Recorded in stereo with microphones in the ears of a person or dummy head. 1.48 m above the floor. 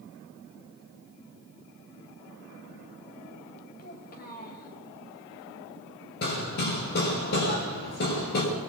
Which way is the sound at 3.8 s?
45° left (ahead or behind).